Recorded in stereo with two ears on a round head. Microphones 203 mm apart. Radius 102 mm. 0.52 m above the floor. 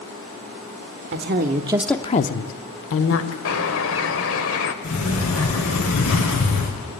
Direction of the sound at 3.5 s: 60° left (ahead or behind).